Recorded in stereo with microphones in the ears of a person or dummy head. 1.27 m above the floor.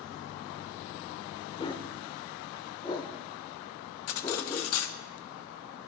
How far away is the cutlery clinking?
About 0.6 m.